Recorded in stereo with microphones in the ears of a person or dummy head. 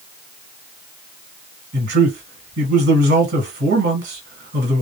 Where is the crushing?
No crushing in this recording.